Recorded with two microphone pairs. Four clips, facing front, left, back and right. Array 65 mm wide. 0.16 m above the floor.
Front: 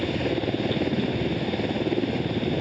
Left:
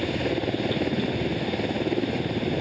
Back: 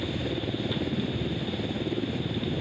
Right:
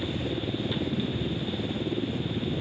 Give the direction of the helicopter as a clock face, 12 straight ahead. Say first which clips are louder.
Left 5 dB, front 5 dB; 10 o'clock.